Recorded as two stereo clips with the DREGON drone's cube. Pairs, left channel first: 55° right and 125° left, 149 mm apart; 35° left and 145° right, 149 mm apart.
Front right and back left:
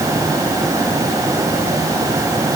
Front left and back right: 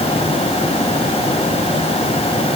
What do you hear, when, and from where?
Only background noise.